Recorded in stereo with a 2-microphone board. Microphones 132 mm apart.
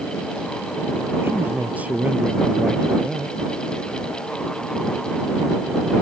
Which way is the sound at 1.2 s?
15° right (ahead or behind).